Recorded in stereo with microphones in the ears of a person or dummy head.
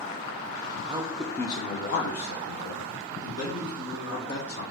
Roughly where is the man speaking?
Right.